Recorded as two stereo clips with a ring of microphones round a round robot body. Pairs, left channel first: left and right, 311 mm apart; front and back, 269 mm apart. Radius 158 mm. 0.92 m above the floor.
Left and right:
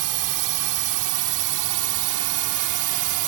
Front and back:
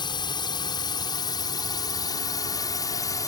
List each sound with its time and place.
0.0 s a drone: 75° right; by 3.3 s 80° right